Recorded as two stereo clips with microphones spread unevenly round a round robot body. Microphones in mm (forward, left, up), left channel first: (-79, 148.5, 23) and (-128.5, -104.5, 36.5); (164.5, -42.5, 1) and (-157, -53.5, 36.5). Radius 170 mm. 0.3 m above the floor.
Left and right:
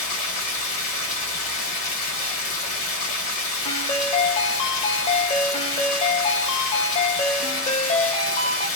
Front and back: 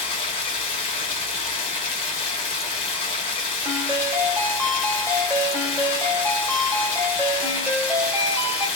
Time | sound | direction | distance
0.0 | running water | 55° left | 1.2 m
3.6 | a ringtone | 95° left | 0.9 m